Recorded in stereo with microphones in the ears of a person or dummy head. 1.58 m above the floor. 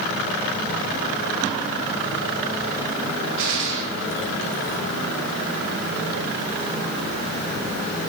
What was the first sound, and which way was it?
A gunshot, 65° right (ahead or behind).